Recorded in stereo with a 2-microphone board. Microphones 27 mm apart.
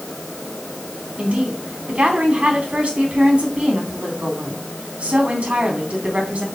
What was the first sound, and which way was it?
A woman speaking, 50° right (ahead or behind).